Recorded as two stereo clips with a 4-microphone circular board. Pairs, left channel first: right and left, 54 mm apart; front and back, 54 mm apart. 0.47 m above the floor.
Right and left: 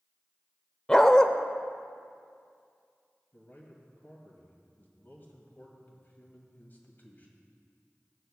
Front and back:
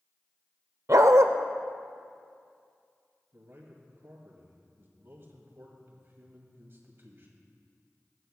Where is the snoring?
I don't hear snoring.